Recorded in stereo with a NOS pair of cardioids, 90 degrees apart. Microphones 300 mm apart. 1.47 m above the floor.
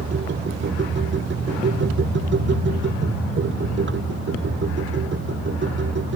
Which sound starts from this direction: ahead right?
A machine running, at 0.0 s.